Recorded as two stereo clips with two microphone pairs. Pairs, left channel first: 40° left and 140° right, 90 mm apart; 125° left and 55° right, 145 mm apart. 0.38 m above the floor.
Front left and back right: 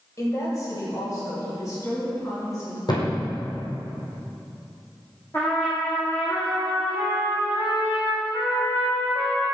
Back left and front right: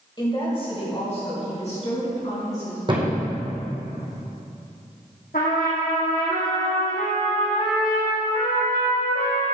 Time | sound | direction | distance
0.2 | a woman speaking | 80° left | 1.8 m
2.9 | a thud | straight ahead | 2.5 m
5.3 | a trumpet | 110° left | 3 m